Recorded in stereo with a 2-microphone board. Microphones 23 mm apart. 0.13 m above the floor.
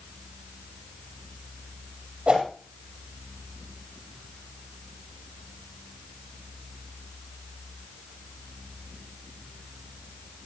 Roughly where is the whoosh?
Right.